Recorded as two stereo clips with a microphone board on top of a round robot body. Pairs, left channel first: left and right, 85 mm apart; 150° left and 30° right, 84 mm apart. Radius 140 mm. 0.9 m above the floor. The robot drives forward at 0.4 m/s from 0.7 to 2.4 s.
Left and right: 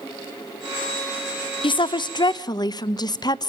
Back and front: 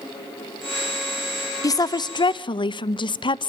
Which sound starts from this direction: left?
A woman speaking, at 1.6 s.